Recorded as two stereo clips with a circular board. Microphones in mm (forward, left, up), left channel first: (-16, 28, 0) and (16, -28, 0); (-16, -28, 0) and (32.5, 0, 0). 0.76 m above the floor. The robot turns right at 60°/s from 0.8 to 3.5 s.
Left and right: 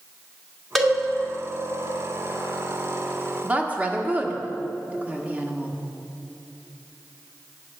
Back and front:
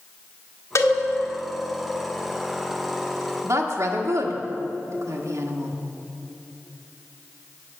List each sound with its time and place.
0.8 s a cowbell: 150° right, 1.6 m; by 1.0 s 140° right, 1.6 m
3.4 s a woman speaking: 5° left, 1.2 m; by 5.8 s 10° left, 1.2 m